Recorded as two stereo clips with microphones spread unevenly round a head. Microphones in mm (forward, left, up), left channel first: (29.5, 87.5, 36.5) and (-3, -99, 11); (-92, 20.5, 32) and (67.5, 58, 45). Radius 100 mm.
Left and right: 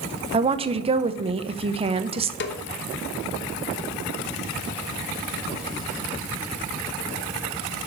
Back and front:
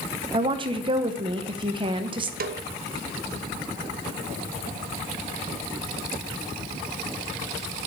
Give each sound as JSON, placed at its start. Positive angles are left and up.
{"t": 0.3, "sound": "a woman speaking", "azimuth_deg": -50, "distance_m": 0.8}
{"t": 2.4, "sound": "a snare drum", "azimuth_deg": 45, "distance_m": 0.9}